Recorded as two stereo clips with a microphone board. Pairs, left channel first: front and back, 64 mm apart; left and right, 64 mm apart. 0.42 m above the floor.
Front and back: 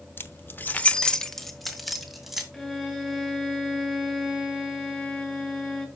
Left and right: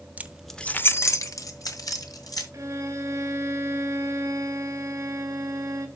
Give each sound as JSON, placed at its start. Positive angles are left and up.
{"t": 0.2, "sound": "keys jangling", "azimuth_deg": -35, "distance_m": 0.8}
{"t": 2.5, "sound": "a violin", "azimuth_deg": -80, "distance_m": 2.5}